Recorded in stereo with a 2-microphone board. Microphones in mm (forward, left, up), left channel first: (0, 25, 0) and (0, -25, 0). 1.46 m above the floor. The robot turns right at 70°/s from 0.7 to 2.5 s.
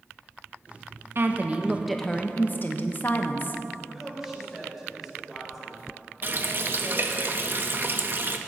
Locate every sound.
1.1 s a woman speaking: 55° right, 1.1 m; by 3.6 s 40° left, 1.1 m
3.8 s a woman speaking: centre (ahead or behind), 6 m
6.2 s a running tap: 45° right (ahead or behind), 0.9 m